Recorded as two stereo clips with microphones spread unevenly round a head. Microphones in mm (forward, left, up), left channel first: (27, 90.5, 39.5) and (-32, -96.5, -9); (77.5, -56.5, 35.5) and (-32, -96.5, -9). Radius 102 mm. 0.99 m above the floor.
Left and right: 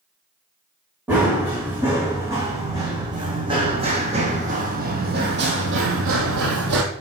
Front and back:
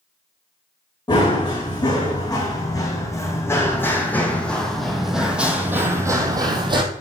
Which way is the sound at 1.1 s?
20° right.